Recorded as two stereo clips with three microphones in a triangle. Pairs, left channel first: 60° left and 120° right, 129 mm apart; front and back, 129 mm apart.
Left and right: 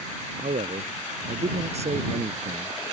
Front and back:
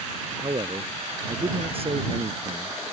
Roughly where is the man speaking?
Behind right.